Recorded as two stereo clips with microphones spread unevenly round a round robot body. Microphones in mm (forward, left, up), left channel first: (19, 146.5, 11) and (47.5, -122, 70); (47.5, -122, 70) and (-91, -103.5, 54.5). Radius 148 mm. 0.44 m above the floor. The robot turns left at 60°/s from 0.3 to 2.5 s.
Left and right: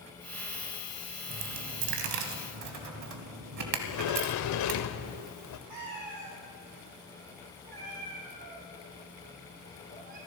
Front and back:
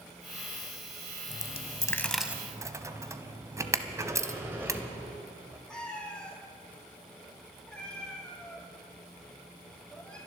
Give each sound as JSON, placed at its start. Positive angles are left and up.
{"t": 1.3, "sound": "a dropped coin", "azimuth_deg": -45, "distance_m": 1.1}
{"t": 3.8, "sound": "a sliding door", "azimuth_deg": 95, "distance_m": 0.7}
{"t": 5.7, "sound": "a cat meowing", "azimuth_deg": -90, "distance_m": 3.5}